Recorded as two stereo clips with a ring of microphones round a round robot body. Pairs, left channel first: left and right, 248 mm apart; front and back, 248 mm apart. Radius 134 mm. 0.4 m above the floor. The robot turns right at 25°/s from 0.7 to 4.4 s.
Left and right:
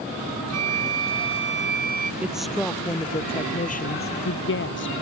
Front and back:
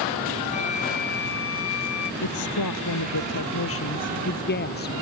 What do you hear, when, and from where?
0.5 s a flute: 65° right; by 2.1 s 30° right
2.2 s a woman speaking: 5° right; by 4.9 s 50° left